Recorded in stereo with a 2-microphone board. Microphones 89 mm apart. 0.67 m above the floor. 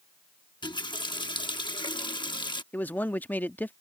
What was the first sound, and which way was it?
A running tap, 65° left (ahead or behind).